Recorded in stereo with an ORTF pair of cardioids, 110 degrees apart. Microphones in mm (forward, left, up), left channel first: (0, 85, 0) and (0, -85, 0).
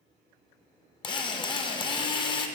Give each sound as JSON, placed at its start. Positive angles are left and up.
{"t": 1.0, "sound": "a drill", "azimuth_deg": 25, "distance_m": 0.6}